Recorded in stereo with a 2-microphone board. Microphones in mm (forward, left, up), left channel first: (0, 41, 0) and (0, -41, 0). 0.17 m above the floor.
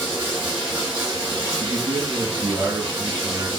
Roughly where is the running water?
Right.